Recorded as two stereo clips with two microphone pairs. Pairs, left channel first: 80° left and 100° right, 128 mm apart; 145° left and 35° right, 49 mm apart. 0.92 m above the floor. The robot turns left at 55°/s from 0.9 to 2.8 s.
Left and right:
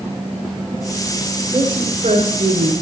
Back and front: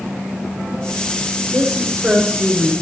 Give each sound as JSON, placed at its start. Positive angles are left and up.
{"t": 1.5, "sound": "a woman speaking", "azimuth_deg": -40, "distance_m": 2.5}